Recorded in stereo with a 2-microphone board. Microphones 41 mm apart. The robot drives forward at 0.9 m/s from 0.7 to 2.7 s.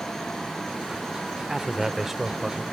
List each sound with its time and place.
1.5 s a man speaking: 10° right (ahead or behind), 0.7 m; by 2.6 s 5° right (ahead or behind), 1.5 m